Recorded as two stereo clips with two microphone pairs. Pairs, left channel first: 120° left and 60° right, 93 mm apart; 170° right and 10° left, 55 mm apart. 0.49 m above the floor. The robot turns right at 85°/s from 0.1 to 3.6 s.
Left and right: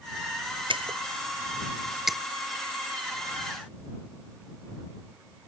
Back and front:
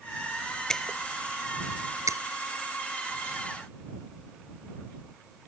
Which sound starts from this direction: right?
Breaking glass, at 0.7 s.